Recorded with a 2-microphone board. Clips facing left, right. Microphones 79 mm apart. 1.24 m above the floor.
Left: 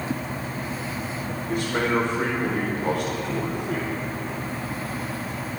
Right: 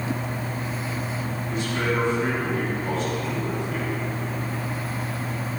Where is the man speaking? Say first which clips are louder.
Left 3 dB; 70° left (ahead or behind), 5.5 m.